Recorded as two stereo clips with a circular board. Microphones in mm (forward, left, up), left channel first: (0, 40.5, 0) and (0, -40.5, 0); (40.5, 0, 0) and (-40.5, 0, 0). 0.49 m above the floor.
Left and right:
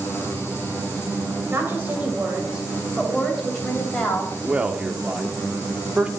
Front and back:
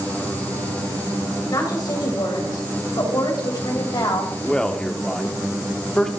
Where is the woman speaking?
35° right, 2.5 m; by 4.3 s 15° left, 3 m.